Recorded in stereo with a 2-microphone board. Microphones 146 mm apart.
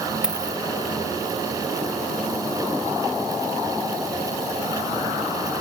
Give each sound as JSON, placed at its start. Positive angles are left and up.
{"t": 0.2, "sound": "a dropped coin", "side_deg": -5}